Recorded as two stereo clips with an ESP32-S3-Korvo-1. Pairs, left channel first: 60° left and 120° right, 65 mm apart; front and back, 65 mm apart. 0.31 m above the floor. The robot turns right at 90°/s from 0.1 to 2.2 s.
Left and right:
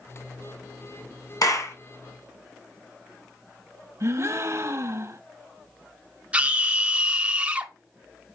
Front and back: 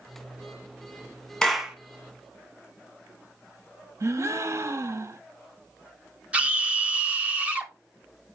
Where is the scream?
145° right, 1.3 m.